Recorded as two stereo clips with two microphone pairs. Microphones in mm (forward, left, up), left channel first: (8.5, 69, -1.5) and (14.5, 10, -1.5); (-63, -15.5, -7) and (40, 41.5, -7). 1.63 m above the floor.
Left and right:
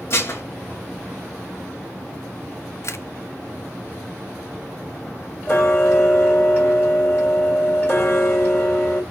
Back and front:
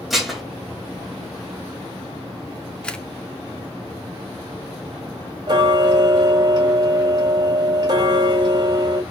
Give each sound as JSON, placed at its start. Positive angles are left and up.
{"t": 0.1, "sound": "dishes clattering", "azimuth_deg": 120, "distance_m": 1.3}
{"t": 2.8, "sound": "a camera shutter", "azimuth_deg": 130, "distance_m": 0.5}
{"t": 5.5, "sound": "ticking", "azimuth_deg": 60, "distance_m": 1.9}